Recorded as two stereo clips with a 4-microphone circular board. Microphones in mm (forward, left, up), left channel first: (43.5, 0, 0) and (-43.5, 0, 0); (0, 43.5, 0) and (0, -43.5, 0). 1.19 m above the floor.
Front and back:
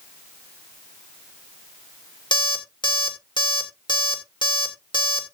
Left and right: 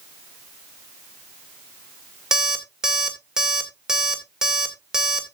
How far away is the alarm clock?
About 2 m.